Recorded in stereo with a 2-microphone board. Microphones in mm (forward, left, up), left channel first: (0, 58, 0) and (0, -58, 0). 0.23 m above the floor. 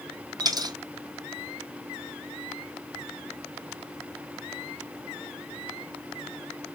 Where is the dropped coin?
35° right (ahead or behind), 0.9 m.